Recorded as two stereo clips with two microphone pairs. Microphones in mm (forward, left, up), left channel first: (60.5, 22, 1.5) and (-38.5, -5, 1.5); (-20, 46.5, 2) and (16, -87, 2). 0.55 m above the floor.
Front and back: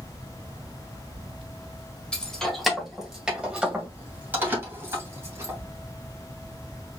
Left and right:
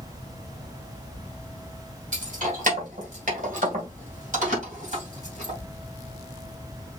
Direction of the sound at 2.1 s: 65° right.